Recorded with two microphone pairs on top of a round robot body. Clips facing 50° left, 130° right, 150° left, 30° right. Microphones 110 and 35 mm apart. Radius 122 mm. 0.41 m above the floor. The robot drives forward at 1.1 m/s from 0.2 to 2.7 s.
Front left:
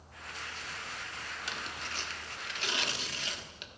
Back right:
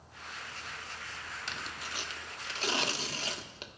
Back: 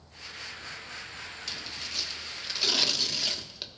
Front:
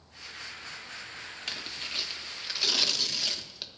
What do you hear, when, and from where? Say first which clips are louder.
1.5 s tearing paper: front left 1 dB, front 3 dB; 30° right, 1.4 m; by 3.7 s 140° right, 1.3 m